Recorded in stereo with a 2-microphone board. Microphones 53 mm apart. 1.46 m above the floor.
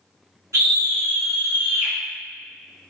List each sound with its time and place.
0.5 s a scream: 75° right (ahead or behind), 1.1 m